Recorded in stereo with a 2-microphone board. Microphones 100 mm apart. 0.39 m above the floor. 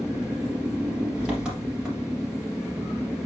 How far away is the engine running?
About 3 m.